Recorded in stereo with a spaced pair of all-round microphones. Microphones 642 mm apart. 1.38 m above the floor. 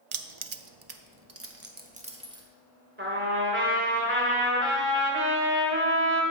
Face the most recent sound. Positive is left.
turn(degrees=-20)  # may be behind; listen again after turning